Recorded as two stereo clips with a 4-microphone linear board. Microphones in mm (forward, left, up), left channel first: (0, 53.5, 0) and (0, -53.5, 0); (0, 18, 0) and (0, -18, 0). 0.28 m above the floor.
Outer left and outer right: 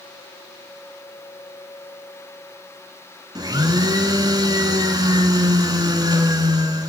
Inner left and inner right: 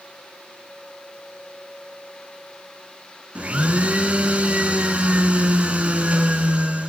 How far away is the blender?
About 1.7 m.